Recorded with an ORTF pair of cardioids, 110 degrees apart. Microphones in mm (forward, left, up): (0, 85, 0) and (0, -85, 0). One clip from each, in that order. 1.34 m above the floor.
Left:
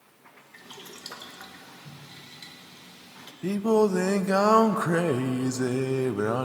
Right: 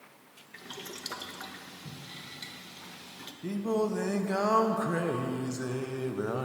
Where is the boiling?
15° right, 1.3 m.